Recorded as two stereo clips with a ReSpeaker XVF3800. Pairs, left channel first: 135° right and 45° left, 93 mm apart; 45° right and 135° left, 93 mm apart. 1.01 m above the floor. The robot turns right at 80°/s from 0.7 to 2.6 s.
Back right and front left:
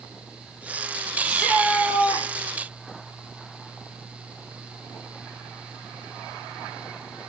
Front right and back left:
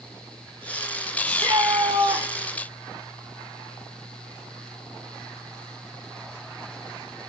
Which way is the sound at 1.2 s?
120° left.